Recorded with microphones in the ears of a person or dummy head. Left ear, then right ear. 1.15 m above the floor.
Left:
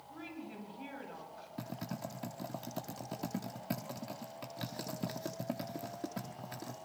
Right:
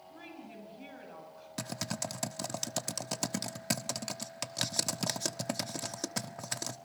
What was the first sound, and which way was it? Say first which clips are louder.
A woman speaking: left 2 dB; 5° right (ahead or behind).